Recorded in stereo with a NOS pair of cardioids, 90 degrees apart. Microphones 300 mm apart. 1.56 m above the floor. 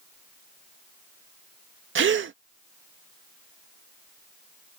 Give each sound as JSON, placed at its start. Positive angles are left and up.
{"t": 1.9, "sound": "a gasp", "azimuth_deg": -45}